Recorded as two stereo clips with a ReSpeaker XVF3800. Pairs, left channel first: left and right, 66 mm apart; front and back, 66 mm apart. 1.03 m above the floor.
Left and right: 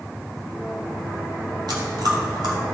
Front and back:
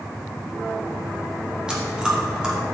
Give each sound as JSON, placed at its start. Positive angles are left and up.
{"t": 1.7, "sound": "chewing", "azimuth_deg": -100, "distance_m": 2.5}